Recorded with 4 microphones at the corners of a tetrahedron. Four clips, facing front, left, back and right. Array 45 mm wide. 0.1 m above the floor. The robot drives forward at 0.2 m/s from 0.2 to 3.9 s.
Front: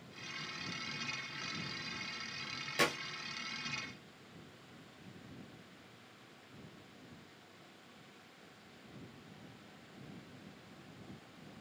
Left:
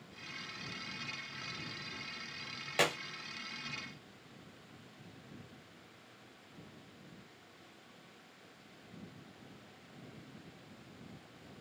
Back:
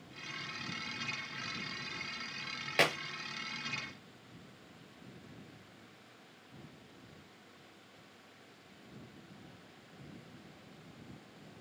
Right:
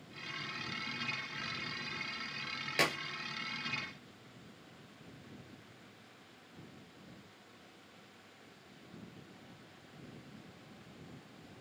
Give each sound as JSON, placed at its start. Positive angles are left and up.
{"t": 2.8, "sound": "a clap", "azimuth_deg": 165, "distance_m": 1.8}